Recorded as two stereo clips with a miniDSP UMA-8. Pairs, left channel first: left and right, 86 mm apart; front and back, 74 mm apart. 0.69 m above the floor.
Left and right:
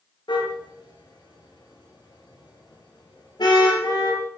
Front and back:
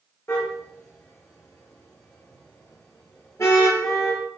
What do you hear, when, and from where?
0.3 s a car horn: 55° left, 5.5 m